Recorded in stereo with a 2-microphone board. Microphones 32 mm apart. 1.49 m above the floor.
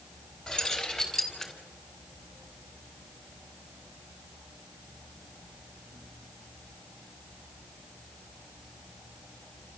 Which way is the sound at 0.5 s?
30° left (ahead or behind).